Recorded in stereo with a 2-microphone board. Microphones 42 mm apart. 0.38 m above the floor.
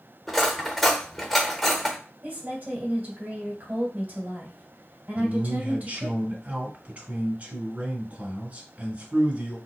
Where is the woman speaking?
50° right (ahead or behind), 1.8 m.